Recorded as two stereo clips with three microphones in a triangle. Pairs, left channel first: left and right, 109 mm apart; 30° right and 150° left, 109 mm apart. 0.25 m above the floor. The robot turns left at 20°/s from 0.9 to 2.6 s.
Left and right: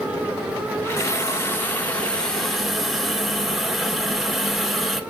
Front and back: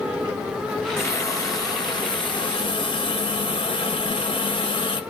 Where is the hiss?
30° left, 0.8 m; by 5.0 s straight ahead, 0.8 m.